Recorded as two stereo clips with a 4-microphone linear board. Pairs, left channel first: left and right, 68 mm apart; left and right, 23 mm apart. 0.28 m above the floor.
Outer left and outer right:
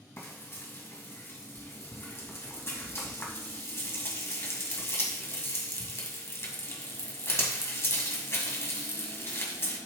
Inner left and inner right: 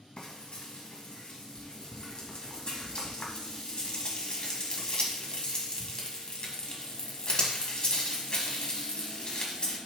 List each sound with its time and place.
0.2 s frying: 40° left (ahead or behind), 1.9 m